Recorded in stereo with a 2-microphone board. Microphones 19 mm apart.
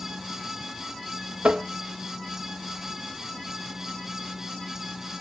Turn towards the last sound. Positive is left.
turn(degrees=-70)  # may be behind; listen again after turning